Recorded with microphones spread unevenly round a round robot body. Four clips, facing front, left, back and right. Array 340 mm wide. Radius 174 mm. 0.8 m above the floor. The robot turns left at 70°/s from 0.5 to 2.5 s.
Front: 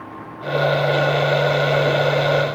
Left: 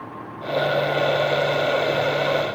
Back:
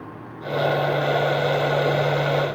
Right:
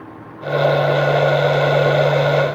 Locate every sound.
Only background noise.